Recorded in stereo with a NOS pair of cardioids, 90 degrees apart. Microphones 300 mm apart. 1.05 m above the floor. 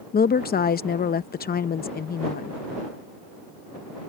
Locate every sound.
0.1 s a woman speaking: 30° left